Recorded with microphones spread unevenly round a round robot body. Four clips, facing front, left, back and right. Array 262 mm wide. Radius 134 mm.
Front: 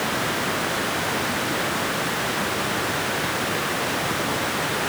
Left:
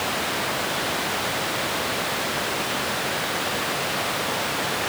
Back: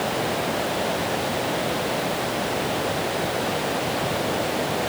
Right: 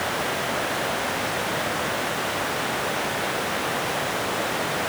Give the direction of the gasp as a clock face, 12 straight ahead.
I don't hear a gasp.